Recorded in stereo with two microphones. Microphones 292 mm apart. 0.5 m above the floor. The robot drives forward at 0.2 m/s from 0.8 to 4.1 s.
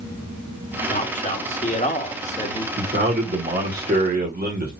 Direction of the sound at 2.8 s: 35° right (ahead or behind).